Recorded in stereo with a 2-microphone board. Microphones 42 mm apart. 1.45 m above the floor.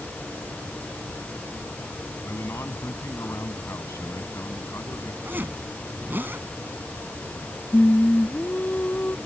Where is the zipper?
50° right (ahead or behind).